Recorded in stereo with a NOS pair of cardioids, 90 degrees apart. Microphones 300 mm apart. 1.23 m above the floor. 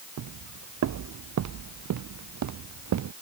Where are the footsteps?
65° right.